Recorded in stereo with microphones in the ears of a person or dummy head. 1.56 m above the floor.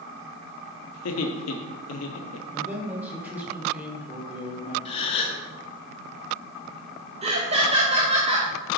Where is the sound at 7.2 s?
40° right (ahead or behind), 0.7 m.